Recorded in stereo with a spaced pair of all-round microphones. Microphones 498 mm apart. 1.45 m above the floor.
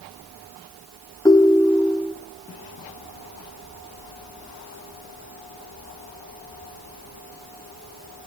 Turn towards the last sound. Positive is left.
turn(degrees=5)  # may be behind; listen again after turning